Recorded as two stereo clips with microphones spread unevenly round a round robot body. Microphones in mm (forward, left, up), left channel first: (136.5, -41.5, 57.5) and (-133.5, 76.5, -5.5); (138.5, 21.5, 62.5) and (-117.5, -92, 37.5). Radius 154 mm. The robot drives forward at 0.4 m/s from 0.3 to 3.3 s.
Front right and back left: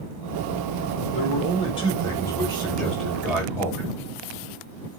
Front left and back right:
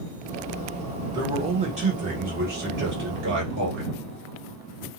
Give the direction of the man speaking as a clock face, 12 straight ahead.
3 o'clock.